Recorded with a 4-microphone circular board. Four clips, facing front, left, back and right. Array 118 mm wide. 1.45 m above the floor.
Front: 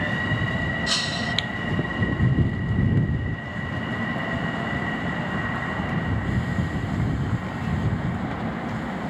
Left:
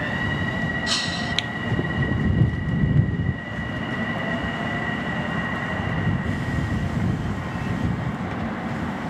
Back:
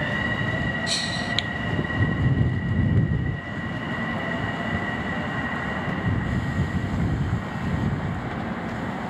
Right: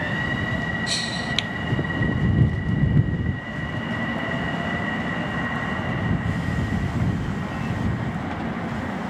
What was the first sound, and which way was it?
Breaking glass, 45° left.